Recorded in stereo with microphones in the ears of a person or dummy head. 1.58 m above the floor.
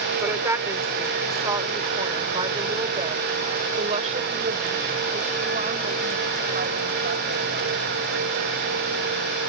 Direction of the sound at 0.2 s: 15° right (ahead or behind).